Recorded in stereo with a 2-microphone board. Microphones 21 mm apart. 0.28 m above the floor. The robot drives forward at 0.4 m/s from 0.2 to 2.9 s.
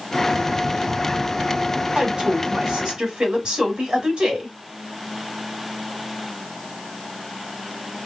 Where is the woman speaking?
50° right (ahead or behind), 1.9 m; by 4.5 s 45° right (ahead or behind), 2 m.